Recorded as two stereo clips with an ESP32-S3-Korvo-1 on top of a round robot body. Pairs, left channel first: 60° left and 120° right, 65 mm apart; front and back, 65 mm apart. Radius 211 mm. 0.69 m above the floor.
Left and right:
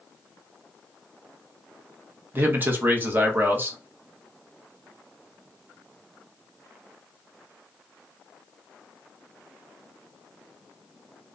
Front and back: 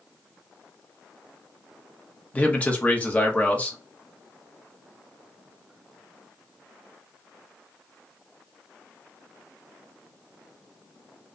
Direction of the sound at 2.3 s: 65° right.